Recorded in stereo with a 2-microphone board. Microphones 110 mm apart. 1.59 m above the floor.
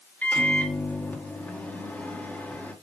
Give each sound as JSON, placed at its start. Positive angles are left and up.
{"t": 0.2, "sound": "a microwave", "side_deg": 15, "distance_m": 2.0}